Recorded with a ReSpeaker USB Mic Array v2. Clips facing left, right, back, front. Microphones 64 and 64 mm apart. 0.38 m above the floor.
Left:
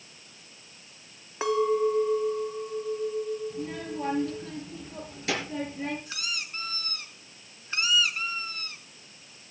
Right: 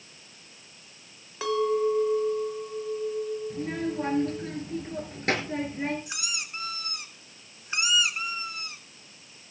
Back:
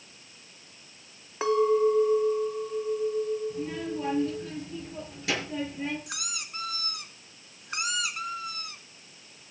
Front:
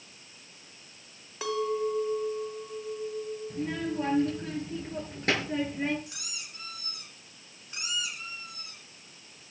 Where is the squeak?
160° right, 1.8 m.